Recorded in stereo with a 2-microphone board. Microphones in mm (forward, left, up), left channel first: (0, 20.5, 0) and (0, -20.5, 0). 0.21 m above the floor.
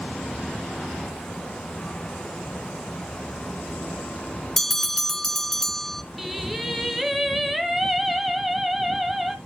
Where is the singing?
Centre (ahead or behind), 0.9 m.